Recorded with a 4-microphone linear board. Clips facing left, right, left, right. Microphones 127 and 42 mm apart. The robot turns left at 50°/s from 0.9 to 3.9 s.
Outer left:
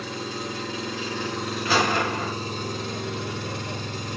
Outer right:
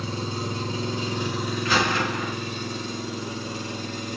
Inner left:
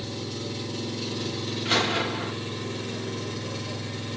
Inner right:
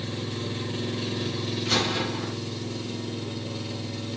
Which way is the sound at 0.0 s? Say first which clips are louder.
Outer right 2 dB, inner right 1 dB; 150° right.